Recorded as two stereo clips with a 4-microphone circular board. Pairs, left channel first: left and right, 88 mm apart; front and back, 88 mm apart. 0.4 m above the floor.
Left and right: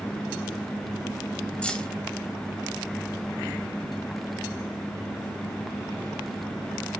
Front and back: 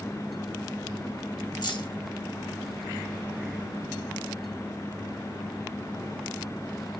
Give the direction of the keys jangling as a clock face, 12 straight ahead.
11 o'clock.